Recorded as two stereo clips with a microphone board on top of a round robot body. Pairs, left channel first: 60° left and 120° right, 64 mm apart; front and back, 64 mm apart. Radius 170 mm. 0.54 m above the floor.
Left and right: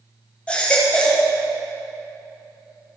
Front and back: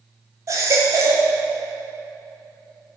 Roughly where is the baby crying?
Behind left.